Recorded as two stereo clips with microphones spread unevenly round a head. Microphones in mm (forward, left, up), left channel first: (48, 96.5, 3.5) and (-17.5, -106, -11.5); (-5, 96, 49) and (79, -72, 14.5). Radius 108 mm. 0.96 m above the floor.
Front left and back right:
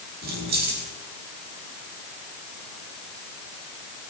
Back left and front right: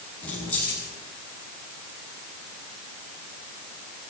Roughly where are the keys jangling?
Behind.